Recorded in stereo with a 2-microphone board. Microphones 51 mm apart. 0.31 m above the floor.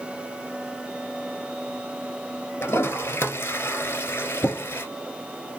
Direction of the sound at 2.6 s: 45° left (ahead or behind).